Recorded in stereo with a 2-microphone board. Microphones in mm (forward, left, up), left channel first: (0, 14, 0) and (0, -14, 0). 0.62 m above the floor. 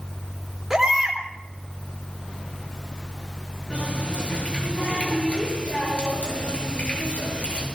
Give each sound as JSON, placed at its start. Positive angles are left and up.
{"t": 0.7, "sound": "a baby crying", "side_deg": -10, "distance_m": 3.5}
{"t": 3.7, "sound": "a running tap", "side_deg": 45, "distance_m": 8.0}